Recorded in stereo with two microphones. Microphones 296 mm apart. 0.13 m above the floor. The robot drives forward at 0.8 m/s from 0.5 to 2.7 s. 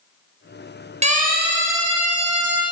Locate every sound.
1.0 s a siren: 20° right (ahead or behind), 2.5 m; by 2.6 s 65° right (ahead or behind), 3 m